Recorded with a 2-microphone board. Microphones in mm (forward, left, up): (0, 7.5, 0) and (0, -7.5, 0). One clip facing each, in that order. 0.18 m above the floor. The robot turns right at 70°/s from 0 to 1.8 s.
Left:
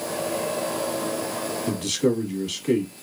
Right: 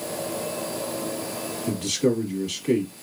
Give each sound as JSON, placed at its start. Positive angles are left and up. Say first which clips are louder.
{"t": 1.7, "sound": "a man speaking", "louder": "right 1 dB", "side_deg": 5, "distance_m": 1.1}